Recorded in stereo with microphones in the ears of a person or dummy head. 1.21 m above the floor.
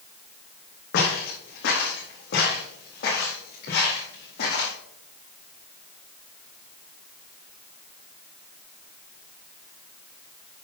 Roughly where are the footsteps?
Left.